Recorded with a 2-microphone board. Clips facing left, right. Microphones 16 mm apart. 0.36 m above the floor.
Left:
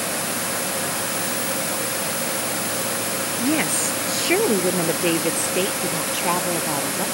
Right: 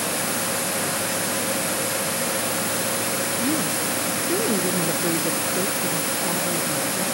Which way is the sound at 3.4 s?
80° left.